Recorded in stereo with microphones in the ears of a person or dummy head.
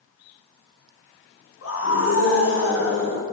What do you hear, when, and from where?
1.6 s a scream: 60° left (ahead or behind), 4 m; by 3.2 s 70° left (ahead or behind), 4.5 m